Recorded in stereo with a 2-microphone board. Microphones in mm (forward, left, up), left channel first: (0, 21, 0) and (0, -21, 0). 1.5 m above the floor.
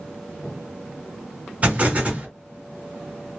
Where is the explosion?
35° right (ahead or behind), 1.6 m.